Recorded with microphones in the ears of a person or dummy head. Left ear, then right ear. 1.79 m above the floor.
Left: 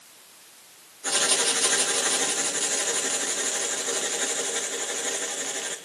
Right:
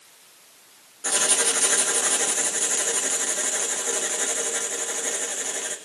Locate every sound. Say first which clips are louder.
1.0 s writing: even; 20° right (ahead or behind), 1.8 m